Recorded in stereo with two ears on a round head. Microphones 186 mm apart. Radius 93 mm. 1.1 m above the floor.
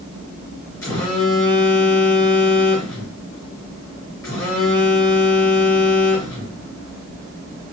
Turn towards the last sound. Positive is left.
turn(degrees=15)  # may be behind; listen again after turning